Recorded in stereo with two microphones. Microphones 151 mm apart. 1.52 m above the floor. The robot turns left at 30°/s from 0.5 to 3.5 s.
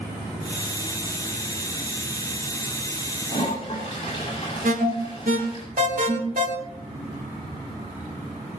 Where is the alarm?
70° right (ahead or behind), 3.5 m.